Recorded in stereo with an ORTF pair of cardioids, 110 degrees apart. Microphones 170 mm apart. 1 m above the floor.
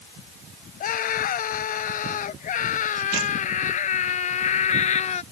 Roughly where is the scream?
Ahead left.